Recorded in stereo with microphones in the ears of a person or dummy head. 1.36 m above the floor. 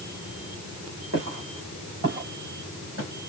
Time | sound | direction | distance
1.1 | footsteps | 55° right (ahead or behind) | 5 m